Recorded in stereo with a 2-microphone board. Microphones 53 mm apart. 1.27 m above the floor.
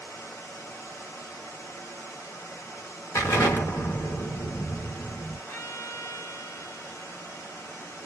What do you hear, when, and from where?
0.0 s running water: 65° left (ahead or behind), 1.4 m
3.1 s an explosion: 70° left (ahead or behind), 1.0 m
5.5 s a violin: 60° left (ahead or behind), 1.7 m